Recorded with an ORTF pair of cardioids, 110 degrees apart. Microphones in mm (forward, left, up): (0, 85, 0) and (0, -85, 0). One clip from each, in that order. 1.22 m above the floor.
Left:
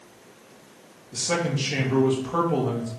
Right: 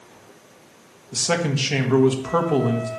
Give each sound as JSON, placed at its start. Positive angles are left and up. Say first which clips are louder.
{"t": 1.1, "sound": "a man speaking", "louder": "right 3 dB", "azimuth_deg": -40, "distance_m": 1.8}